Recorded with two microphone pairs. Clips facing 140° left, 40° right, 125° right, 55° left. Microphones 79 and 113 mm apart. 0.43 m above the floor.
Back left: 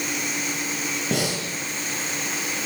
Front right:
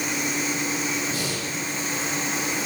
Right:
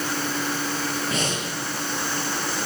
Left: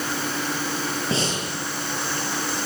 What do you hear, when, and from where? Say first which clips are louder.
1.1 s breathing: back left 4 dB, left 1 dB; 115° left, 8.5 m